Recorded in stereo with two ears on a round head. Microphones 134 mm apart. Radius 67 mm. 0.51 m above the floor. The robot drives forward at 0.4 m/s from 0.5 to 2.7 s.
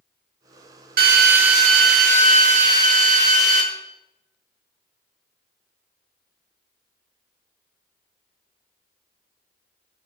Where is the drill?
65° right (ahead or behind), 1.2 m; by 3.6 s 50° right (ahead or behind), 1.5 m.